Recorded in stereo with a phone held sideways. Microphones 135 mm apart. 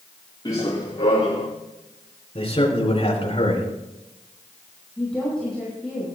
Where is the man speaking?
45° left (ahead or behind), 4.5 m.